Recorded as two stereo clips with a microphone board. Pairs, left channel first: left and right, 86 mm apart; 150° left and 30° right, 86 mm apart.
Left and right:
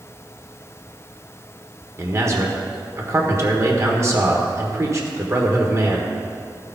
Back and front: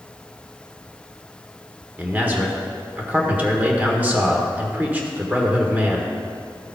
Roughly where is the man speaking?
Right.